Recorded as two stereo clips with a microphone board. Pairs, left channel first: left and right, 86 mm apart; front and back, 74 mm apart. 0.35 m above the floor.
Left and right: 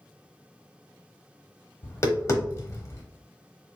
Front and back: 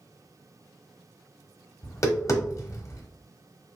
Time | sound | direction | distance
1.8 | tapping | 40° left | 0.8 m